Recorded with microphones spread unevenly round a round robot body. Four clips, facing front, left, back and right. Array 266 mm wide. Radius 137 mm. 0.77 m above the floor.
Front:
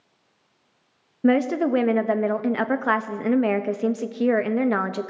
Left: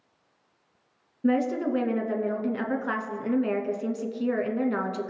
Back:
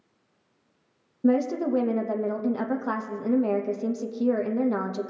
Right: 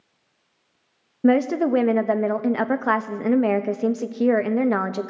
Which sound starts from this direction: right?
A woman speaking, at 1.2 s.